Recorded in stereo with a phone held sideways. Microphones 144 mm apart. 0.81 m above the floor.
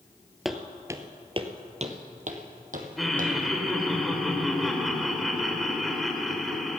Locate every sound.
0.5 s footsteps: centre (ahead or behind), 0.9 m; by 3.3 s 70° right (ahead or behind), 2 m
3.0 s laughter: centre (ahead or behind), 2.5 m